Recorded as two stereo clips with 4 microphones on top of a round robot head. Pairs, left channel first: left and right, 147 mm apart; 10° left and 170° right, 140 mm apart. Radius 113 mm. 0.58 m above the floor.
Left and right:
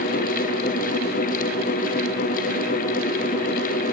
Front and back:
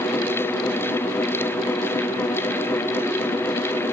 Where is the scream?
No scream in this recording.